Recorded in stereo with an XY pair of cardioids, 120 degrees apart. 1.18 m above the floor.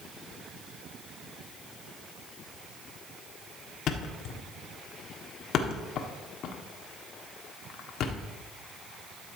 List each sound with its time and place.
3.9 s a thud: 65° left, 1.5 m